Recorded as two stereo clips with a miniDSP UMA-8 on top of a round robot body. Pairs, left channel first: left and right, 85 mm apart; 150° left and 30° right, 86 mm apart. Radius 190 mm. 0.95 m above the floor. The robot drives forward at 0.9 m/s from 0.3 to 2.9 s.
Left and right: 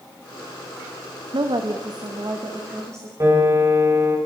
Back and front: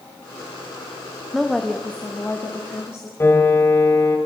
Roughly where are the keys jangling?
No keys jangling in this recording.